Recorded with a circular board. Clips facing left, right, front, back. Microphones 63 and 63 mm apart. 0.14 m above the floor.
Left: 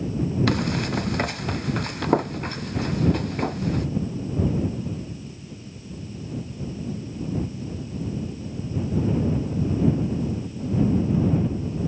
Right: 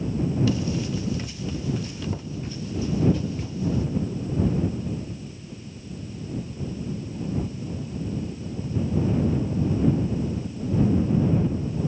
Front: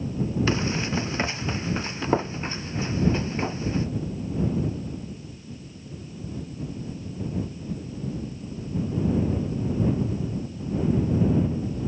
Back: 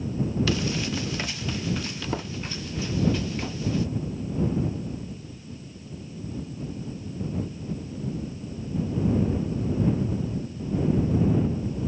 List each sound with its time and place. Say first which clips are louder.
0.5 s running footsteps: left 2 dB, front 1 dB; 60° left